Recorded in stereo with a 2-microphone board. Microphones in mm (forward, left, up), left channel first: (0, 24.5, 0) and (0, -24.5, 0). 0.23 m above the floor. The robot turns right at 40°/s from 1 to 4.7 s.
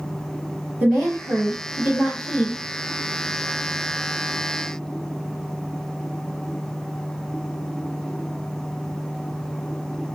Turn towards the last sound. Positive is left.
turn(degrees=110)